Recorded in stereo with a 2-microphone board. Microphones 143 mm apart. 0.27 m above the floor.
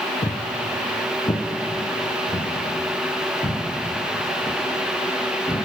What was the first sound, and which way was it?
Footsteps, 50° left (ahead or behind).